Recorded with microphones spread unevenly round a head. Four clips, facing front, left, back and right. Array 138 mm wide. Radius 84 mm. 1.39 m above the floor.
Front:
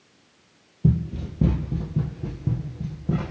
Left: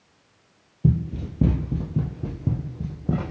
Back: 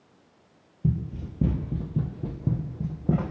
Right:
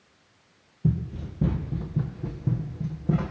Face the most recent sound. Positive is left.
turn(degrees=145)